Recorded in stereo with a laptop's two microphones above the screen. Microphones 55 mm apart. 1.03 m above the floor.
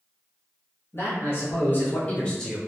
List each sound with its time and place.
0.9 s a man speaking: 50° left (ahead or behind), 1.6 m; by 2.6 s centre (ahead or behind), 0.6 m